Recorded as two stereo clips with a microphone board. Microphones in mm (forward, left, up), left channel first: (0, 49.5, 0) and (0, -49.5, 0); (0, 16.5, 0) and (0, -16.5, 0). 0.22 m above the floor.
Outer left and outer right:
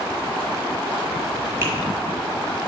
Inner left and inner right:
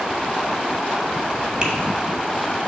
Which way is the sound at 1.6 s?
25° right (ahead or behind).